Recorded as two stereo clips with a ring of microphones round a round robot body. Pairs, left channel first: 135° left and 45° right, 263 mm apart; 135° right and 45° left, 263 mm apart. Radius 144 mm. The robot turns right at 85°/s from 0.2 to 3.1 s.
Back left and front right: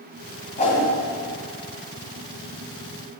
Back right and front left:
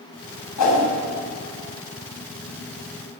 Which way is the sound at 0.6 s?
165° right.